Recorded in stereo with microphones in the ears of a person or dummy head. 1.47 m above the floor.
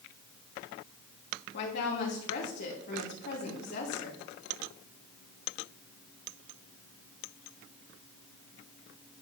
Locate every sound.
1.5 s a woman speaking: 60° left (ahead or behind), 2.5 m